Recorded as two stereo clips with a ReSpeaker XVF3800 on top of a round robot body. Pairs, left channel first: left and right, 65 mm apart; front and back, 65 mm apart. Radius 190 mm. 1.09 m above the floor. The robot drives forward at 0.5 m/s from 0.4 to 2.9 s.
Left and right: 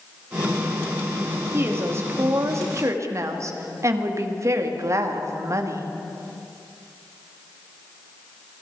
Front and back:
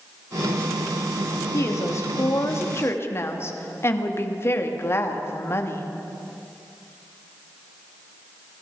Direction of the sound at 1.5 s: 40° right.